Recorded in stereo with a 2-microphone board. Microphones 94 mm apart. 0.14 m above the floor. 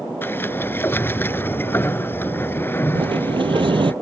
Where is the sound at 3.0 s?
75° right (ahead or behind).